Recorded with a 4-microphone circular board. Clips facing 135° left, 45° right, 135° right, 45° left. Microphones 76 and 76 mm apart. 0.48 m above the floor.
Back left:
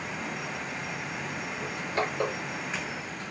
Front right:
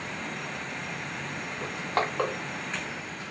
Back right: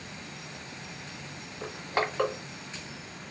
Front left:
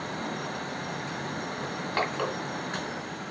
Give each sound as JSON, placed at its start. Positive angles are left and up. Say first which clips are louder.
{"t": 1.6, "sound": "crushing", "louder": "front right 2 dB, back right 1 dB", "azimuth_deg": -55, "distance_m": 1.9}